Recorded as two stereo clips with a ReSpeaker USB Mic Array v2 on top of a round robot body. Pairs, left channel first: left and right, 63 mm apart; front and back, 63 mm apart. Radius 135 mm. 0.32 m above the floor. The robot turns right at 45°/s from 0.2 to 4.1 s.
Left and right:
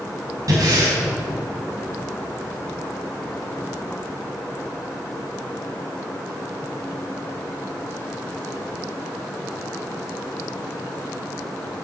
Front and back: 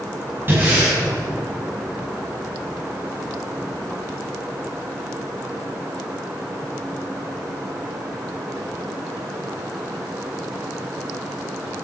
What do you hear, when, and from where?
0.5 s breathing: 125° right, 6 m; by 1.0 s 100° right, 6 m